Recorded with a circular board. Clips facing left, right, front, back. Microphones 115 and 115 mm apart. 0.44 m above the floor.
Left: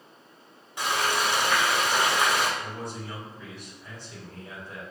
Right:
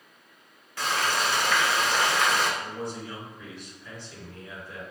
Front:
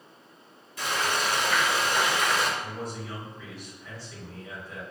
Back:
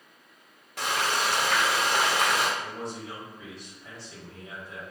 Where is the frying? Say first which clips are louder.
Left 1 dB, back 1 dB; 160° left, 0.9 m.